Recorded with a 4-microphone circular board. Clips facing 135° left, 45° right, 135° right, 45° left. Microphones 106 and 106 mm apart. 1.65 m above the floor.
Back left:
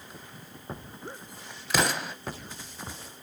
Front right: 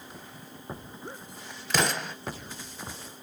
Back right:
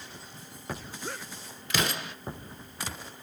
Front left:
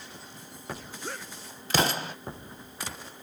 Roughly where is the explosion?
Ahead left.